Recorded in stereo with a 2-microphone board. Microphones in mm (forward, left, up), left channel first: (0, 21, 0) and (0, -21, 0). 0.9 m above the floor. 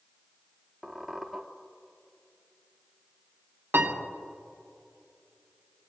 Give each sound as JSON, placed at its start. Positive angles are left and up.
{"t": 0.8, "sound": "a squeak", "side_deg": 0, "distance_m": 0.9}
{"t": 3.7, "sound": "a piano", "side_deg": -85, "distance_m": 1.2}